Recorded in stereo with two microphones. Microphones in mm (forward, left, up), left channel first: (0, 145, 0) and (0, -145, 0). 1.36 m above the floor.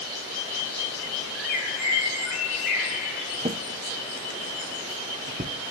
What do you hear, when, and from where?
1.4 s a bird: centre (ahead or behind), 6.5 m
3.4 s a drawer: 25° right (ahead or behind), 0.7 m